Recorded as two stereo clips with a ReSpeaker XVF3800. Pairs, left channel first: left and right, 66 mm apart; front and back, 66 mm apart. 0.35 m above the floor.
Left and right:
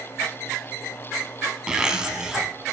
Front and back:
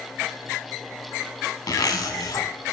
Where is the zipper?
10° right, 0.7 m.